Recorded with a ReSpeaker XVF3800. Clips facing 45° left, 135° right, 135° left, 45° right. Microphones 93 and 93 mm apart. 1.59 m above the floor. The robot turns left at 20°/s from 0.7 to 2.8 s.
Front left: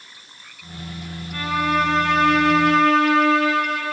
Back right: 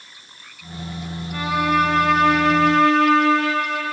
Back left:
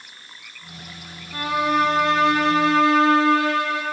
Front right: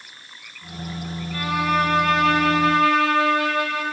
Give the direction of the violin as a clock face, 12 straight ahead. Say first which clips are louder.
Back right 2 dB, back left 1 dB; 7 o'clock.